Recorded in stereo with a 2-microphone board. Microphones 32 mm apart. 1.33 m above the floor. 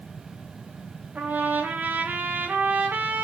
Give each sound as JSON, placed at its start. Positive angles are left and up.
{"t": 1.1, "sound": "a trumpet", "side_deg": -70, "distance_m": 3.0}